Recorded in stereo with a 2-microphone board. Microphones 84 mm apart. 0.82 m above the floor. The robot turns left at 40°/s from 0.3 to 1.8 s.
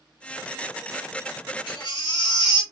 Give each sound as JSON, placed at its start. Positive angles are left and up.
{"t": 1.7, "sound": "a baby crying", "side_deg": 80, "distance_m": 1.7}